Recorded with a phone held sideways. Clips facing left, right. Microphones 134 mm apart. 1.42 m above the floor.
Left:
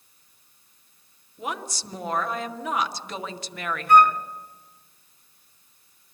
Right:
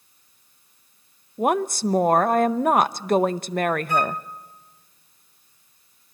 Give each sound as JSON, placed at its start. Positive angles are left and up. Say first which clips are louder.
{"t": 1.4, "sound": "a woman speaking", "louder": "right 12 dB", "side_deg": -50, "distance_m": 0.5}
{"t": 3.9, "sound": "a flute", "louder": "left 7 dB", "side_deg": 55, "distance_m": 0.8}